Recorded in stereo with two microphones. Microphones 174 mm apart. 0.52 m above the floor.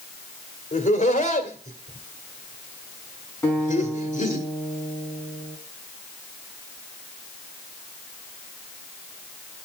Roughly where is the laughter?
Left.